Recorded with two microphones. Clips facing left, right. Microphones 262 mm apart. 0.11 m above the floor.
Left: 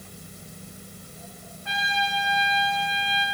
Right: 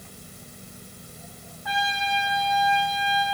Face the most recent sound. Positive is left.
turn(degrees=25)  # may be behind; listen again after turning